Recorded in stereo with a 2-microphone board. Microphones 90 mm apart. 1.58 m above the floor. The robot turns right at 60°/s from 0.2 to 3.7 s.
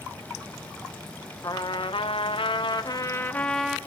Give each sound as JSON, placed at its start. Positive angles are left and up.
{"t": 1.4, "sound": "a trumpet", "azimuth_deg": 45, "distance_m": 0.7}